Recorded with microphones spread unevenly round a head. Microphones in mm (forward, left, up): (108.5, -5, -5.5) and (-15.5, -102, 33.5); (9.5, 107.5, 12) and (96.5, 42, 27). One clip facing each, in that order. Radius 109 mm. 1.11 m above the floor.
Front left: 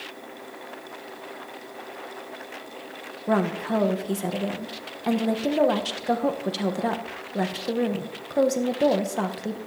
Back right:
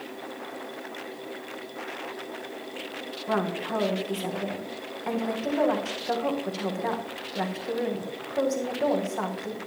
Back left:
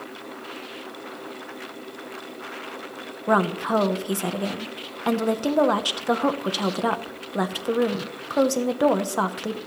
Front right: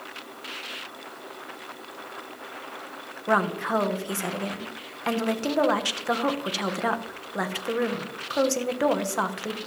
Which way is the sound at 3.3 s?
80° left.